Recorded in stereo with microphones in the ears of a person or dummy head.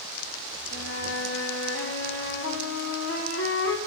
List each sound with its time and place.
0.7 s a flute: 60° left (ahead or behind), 1.3 m